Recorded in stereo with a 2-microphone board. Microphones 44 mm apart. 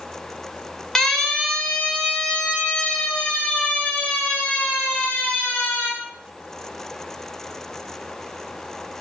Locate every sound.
0.9 s a siren: 10° left (ahead or behind), 3 m; by 5.9 s 30° left (ahead or behind), 7.5 m